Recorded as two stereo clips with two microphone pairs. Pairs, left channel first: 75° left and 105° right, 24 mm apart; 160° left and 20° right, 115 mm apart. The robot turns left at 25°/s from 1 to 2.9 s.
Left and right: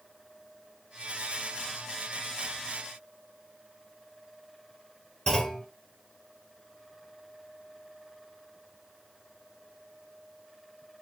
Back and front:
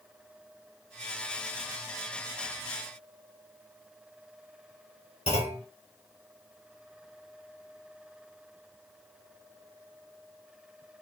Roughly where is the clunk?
Behind left.